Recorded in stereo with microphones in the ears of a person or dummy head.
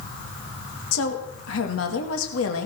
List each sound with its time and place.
0.9 s a woman speaking: 80° left, 2 m